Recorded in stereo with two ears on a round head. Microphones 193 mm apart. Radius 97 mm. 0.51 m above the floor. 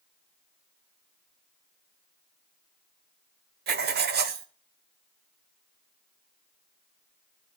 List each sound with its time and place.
3.7 s writing: 50° right (ahead or behind), 1.2 m